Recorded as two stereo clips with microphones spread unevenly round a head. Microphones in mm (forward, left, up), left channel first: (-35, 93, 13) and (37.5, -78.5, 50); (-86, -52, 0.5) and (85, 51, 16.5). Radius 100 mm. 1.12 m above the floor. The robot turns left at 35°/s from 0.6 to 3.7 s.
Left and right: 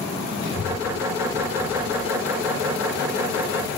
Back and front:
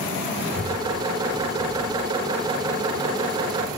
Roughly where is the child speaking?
Behind left.